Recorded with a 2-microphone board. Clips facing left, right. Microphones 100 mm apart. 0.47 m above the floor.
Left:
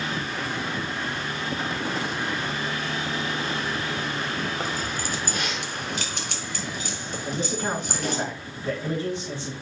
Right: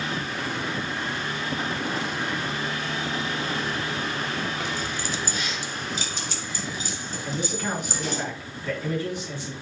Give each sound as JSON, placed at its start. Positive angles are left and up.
{"t": 4.6, "sound": "keys jangling", "side_deg": 35, "distance_m": 0.9}
{"t": 7.2, "sound": "a man speaking", "side_deg": 30, "distance_m": 4.0}